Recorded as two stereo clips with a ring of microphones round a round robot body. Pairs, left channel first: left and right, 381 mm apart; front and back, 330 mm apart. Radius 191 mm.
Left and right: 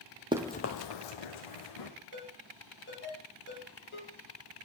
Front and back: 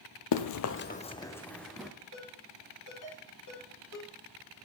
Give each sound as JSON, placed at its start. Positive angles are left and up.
{"t": 0.3, "sound": "running footsteps", "azimuth_deg": -15, "distance_m": 0.7}
{"t": 2.1, "sound": "a ringtone", "azimuth_deg": 30, "distance_m": 4.5}